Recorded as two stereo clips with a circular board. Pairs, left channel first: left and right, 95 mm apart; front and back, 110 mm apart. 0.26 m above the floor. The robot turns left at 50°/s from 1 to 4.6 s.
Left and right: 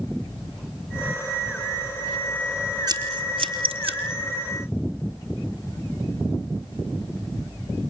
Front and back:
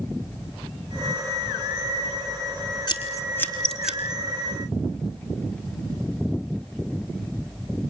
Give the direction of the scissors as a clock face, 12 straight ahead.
2 o'clock.